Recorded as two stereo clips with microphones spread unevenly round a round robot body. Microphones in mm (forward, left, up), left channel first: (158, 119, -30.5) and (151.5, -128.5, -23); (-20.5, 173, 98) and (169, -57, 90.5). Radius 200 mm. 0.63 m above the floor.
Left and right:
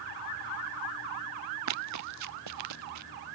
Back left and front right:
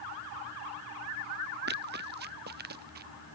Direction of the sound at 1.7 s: 115° right.